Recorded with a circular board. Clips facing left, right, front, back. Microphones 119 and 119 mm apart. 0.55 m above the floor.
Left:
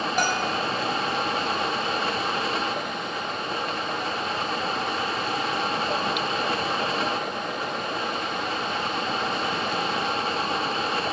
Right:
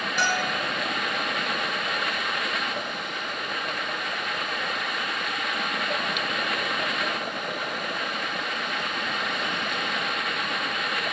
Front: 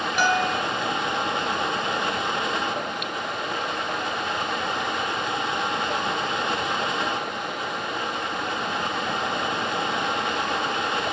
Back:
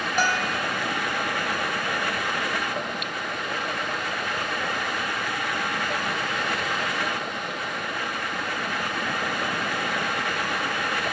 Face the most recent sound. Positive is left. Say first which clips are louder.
# even, front 3 dB
turn(degrees=130)